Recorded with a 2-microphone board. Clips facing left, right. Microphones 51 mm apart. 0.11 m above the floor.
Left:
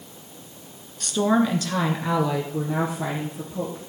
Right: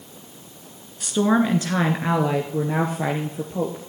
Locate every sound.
1.0 s a woman speaking: 10° right (ahead or behind), 1.1 m; by 3.8 s 50° right (ahead or behind), 2 m